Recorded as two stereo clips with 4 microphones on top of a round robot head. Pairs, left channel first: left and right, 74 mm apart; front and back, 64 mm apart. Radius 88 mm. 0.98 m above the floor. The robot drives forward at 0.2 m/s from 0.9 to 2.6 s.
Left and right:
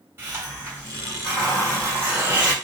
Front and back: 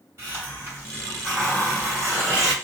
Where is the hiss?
145° right, 1.4 m; by 2.5 s 150° right, 1.7 m.